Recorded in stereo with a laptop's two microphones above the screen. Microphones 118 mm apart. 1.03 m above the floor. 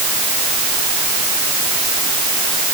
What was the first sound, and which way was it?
Only background noise.